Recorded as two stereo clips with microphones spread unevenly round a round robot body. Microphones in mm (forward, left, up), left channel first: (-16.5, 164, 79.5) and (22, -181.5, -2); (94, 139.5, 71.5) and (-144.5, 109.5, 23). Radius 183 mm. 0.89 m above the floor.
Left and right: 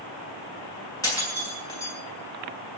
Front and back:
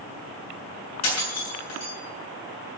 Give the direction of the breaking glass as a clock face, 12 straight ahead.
11 o'clock.